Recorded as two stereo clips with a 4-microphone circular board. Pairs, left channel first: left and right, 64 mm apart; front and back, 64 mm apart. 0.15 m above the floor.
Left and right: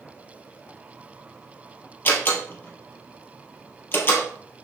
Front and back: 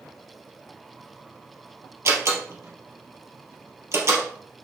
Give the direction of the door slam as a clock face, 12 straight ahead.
7 o'clock.